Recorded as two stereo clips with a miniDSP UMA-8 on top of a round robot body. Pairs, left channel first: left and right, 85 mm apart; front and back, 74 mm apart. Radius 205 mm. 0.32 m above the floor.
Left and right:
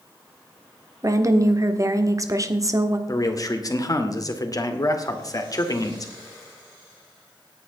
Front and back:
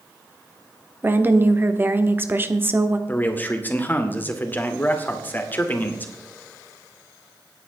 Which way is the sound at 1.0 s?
125° right.